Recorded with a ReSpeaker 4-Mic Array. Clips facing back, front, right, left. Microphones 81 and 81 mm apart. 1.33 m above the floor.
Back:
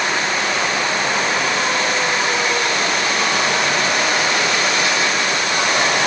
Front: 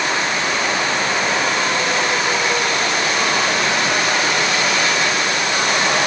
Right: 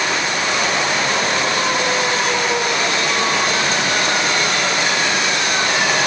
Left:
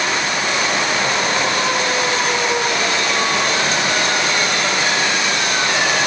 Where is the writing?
No writing in this recording.